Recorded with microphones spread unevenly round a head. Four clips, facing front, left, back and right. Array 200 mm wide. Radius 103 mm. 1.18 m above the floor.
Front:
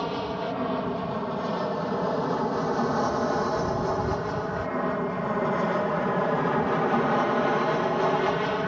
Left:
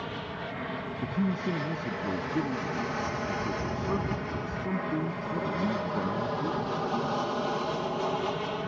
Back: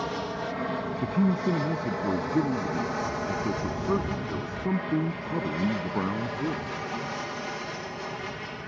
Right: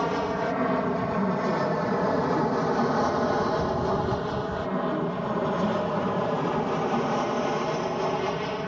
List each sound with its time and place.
0.0 s an aircraft: 75° right; by 8.7 s 20° right
1.0 s a man speaking: 165° left